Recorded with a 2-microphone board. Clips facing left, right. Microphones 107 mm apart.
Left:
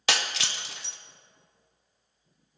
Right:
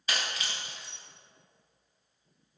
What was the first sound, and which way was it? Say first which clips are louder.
Breaking glass: left 4 dB; 90° left.